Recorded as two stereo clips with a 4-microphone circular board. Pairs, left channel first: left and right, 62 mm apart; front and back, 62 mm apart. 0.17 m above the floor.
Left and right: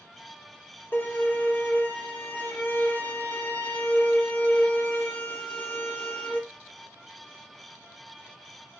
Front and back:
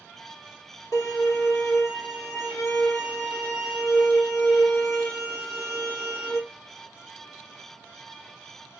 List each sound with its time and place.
0.9 s a violin: 30° left, 2.5 m